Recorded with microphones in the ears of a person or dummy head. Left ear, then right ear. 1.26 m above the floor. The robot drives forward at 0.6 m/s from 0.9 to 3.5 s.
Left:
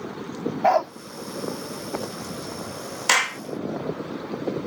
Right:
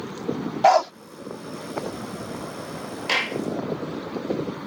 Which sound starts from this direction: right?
A dog barking, at 0.6 s.